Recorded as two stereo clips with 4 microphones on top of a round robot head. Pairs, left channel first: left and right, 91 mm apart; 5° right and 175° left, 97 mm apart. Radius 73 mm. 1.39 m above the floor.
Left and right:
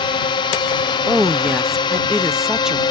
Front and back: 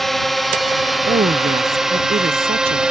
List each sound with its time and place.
0.0 s a drone: 80° left; by 2.9 s 95° left
1.1 s a woman speaking: 175° right